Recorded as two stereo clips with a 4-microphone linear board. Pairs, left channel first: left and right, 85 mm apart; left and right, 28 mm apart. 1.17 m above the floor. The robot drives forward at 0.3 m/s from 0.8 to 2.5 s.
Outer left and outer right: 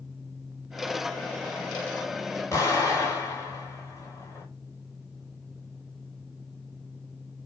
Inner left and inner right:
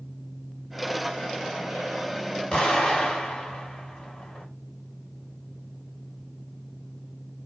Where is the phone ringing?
No phone ringing in this recording.